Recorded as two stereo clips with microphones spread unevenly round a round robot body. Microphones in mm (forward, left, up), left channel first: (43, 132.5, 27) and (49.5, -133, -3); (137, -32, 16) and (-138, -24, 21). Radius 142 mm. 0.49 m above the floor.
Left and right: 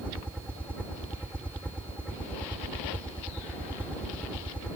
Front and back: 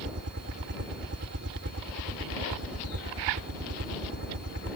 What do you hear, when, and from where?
0.0 s a helicopter: 175° right